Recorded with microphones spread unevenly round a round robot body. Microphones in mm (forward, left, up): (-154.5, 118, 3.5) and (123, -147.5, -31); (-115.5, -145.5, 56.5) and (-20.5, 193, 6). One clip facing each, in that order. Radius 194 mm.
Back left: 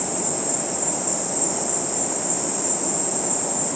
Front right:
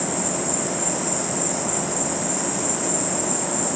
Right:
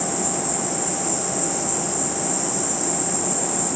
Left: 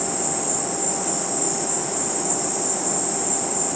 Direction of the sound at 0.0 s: 120° right.